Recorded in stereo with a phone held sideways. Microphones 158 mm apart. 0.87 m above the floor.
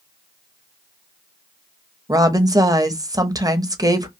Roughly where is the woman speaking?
Right.